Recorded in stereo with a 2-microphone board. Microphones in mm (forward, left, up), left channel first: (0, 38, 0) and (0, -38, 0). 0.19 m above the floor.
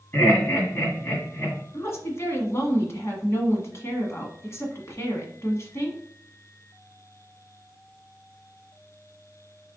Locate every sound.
0.1 s laughter: 25° left (ahead or behind), 1.8 m
1.7 s a woman speaking: 35° left (ahead or behind), 1.4 m